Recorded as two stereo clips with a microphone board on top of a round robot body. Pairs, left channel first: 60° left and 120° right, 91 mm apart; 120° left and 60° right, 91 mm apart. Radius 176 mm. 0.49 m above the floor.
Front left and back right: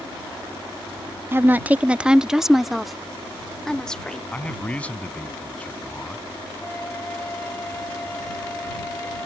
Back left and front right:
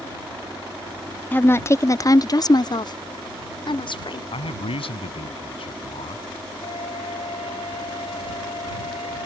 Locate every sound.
1.3 s a woman speaking: 175° right; by 4.2 s 145° left
4.3 s a man speaking: 140° left
6.6 s a flute: 130° left